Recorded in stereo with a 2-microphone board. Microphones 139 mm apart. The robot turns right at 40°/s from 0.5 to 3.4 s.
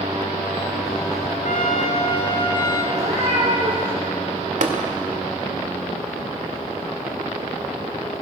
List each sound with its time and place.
1.4 s a trumpet: 105° left, 2.5 m; by 2.8 s 160° left, 2.5 m
2.9 s a cat meowing: 60° right (ahead or behind), 7 m; by 3.9 s 40° right (ahead or behind), 7 m
4.6 s tapping: 60° right (ahead or behind), 2.5 m